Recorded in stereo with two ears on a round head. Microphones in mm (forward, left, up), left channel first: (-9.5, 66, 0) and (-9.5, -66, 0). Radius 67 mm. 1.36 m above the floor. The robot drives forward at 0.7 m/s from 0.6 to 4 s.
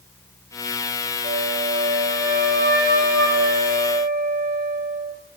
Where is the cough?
I don't hear a cough.